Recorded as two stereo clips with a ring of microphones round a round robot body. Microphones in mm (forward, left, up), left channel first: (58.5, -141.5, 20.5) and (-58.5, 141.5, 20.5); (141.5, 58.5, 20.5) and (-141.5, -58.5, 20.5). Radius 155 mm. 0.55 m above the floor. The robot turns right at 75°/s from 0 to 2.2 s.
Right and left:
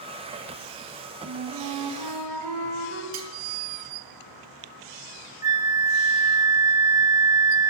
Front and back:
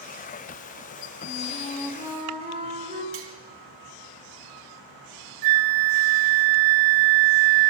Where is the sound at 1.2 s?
60° left, 3.5 m; by 3.0 s 130° left, 3.5 m.